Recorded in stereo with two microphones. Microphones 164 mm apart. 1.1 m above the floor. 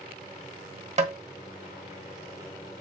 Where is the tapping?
45° right (ahead or behind), 1.2 m.